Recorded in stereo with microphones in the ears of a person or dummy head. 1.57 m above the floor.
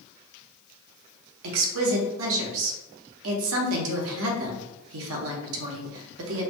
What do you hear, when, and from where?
1.4 s a woman speaking: 75° right (ahead or behind), 0.7 m